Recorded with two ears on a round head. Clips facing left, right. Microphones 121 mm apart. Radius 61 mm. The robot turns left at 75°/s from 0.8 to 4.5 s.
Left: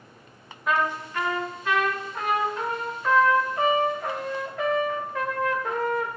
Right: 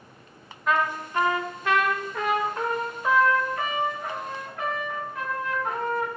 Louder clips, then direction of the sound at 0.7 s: Even; straight ahead.